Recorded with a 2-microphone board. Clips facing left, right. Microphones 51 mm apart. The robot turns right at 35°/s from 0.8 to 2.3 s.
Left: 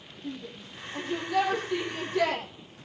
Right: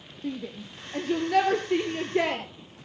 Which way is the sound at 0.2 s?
65° right (ahead or behind).